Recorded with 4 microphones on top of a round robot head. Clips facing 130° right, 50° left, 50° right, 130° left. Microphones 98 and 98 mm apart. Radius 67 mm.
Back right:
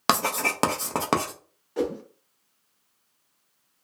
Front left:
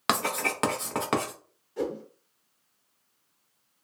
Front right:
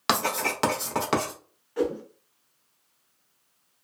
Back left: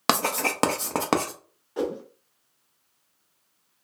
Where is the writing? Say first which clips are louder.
Back right 3 dB, back left 1 dB; 175° left, 0.6 m.